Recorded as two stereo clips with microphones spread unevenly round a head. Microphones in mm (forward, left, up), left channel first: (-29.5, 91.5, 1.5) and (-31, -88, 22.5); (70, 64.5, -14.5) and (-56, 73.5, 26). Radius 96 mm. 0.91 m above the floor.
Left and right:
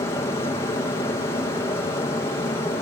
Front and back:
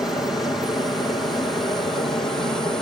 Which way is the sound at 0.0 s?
50° left.